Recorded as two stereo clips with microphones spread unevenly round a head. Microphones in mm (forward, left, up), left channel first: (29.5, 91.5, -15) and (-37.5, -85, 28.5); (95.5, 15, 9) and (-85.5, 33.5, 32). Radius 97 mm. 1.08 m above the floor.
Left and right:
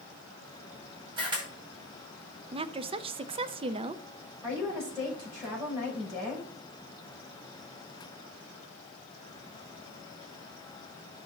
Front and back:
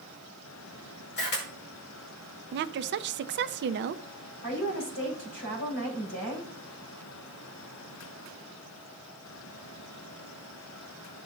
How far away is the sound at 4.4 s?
About 5.5 m.